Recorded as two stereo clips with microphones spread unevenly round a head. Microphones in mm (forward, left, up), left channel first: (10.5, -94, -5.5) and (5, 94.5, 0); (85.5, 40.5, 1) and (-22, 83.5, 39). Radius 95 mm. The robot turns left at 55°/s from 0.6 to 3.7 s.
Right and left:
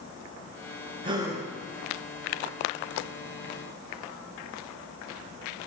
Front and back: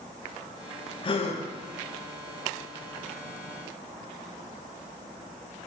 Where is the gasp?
25° left, 0.8 m; by 1.4 s 5° left, 0.8 m.